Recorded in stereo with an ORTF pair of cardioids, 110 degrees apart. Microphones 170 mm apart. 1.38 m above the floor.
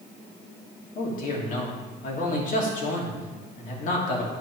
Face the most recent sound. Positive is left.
turn(degrees=50)